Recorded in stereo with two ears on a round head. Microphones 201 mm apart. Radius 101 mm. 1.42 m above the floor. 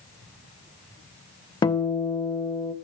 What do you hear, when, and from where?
1.6 s a guitar: 20° left (ahead or behind), 0.7 m